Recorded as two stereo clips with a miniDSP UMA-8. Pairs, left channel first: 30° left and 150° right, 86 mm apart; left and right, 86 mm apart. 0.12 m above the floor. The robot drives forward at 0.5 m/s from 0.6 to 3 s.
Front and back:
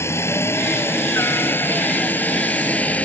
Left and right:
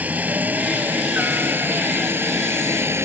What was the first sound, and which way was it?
A helicopter, 25° right.